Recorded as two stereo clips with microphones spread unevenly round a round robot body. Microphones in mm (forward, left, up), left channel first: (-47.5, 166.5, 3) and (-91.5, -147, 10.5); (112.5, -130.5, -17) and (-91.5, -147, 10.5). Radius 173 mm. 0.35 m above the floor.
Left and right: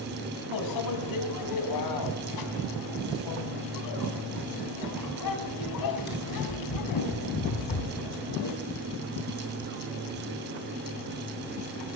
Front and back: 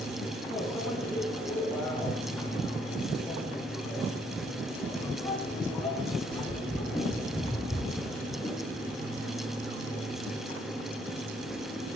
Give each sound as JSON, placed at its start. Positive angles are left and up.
{"t": 0.5, "sound": "a microwave", "azimuth_deg": 90, "distance_m": 2.0}